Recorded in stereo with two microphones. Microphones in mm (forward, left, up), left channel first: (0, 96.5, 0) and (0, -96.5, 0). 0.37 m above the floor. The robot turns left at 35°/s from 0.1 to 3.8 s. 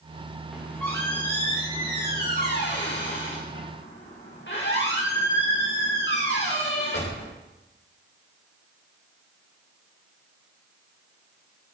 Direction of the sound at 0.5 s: 175° right.